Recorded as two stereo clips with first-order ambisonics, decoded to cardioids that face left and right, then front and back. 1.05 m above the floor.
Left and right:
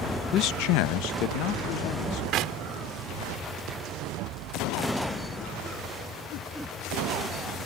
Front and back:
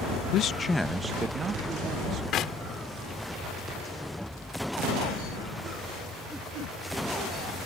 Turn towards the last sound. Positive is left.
turn(degrees=-50)